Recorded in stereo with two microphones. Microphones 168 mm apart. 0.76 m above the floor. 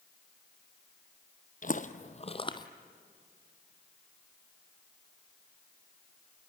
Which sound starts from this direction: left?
Footsteps, at 1.6 s.